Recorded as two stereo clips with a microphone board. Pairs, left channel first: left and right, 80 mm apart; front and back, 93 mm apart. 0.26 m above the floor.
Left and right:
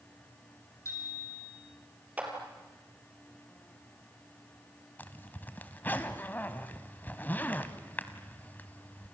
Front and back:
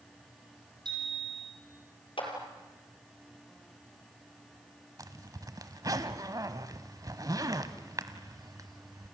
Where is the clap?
15° right, 4.5 m.